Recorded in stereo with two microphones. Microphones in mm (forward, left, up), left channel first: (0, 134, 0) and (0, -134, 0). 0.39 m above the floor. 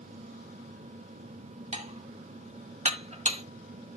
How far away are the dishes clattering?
About 1.4 m.